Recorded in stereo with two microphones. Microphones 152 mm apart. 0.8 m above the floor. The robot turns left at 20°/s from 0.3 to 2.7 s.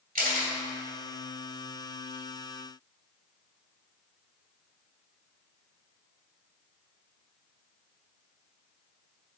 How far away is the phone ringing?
No phone ringing in this recording.